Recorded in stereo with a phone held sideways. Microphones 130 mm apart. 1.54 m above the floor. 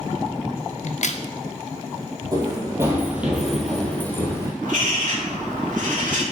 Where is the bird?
80° right, 2 m.